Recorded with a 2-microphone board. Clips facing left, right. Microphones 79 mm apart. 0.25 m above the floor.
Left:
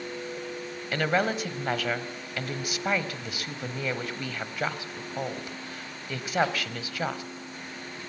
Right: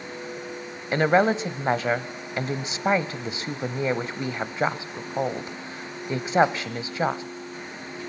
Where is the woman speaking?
30° right (ahead or behind), 1.0 m.